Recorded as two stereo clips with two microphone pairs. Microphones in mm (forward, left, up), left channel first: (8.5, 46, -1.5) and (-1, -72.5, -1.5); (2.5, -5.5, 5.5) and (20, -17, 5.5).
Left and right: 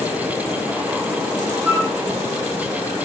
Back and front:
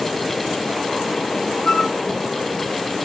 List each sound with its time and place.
1.6 s a flute: 175° right, 0.8 m